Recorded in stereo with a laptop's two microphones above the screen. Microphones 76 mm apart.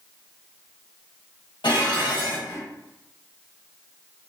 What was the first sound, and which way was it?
Dishes clattering, 85° left.